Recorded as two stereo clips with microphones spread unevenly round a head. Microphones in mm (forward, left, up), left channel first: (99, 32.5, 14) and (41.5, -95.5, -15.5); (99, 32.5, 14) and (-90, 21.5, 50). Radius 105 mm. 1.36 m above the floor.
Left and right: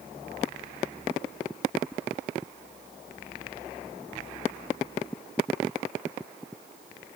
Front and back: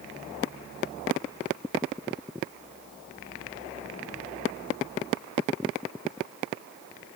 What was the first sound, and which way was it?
Only background noise.